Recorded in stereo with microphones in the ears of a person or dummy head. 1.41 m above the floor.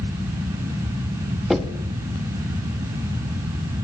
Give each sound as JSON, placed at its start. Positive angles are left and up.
{"t": 1.5, "sound": "knocking", "side_deg": -5, "distance_m": 1.3}